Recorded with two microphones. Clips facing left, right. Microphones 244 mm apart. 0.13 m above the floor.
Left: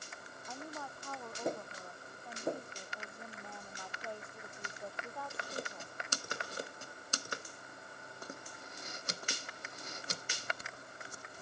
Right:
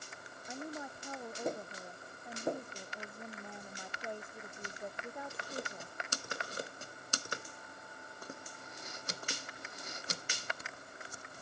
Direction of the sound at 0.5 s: 15° right (ahead or behind).